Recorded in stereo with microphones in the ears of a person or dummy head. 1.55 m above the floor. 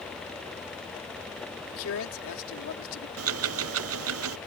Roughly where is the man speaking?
Left.